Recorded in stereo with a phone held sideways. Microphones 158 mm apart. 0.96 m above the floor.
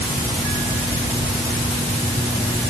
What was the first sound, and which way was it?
Only background noise.